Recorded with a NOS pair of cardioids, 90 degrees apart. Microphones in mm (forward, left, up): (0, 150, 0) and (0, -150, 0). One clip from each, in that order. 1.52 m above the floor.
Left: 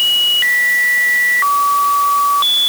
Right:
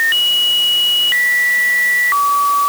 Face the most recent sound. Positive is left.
No sound to turn to.